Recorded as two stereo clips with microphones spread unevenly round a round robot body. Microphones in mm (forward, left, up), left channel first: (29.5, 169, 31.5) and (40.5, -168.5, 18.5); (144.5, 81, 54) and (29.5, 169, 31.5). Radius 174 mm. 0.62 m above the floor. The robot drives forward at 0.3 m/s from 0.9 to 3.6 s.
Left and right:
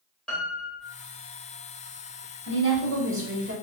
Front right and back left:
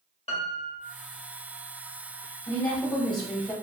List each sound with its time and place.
0.3 s a piano: straight ahead, 1.2 m
2.5 s a woman speaking: 70° right, 1.2 m; by 3.5 s 95° right, 1.2 m